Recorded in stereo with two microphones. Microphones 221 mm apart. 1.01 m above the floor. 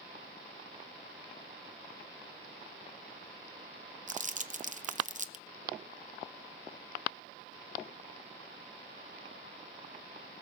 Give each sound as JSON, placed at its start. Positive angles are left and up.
{"t": 4.1, "sound": "crumpling", "side_deg": -35, "distance_m": 0.7}